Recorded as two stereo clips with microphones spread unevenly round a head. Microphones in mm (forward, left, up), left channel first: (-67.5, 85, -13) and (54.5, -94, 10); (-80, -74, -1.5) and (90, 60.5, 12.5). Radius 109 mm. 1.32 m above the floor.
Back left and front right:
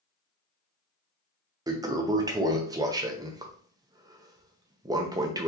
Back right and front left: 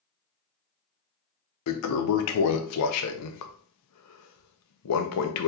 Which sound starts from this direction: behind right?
A toilet flushing, at 1.7 s.